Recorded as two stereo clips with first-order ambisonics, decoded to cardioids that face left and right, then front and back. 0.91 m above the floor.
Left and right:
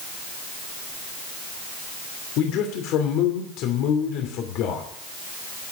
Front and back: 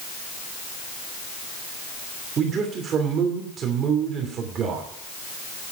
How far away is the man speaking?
About 2.5 m.